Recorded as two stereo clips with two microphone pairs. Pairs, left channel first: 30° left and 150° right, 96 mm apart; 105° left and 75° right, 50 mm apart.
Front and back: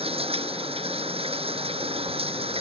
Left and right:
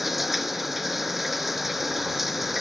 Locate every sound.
0.0 s running water: 165° right